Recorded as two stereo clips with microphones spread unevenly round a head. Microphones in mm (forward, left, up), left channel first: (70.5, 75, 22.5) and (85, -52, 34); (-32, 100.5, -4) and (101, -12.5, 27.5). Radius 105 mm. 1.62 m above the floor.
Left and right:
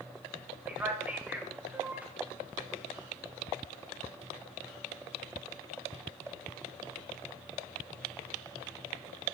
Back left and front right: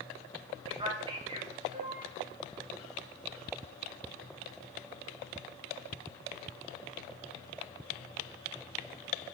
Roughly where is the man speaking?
Ahead.